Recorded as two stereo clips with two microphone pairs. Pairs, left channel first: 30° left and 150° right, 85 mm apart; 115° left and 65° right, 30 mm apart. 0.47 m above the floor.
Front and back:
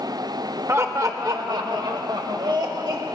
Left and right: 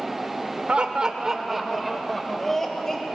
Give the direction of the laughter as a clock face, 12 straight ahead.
3 o'clock.